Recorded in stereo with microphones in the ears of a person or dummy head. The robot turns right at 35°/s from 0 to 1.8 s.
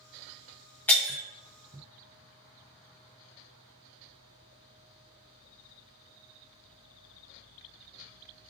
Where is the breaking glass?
5° left (ahead or behind), 0.6 m; by 1.2 s 5° right (ahead or behind), 0.6 m.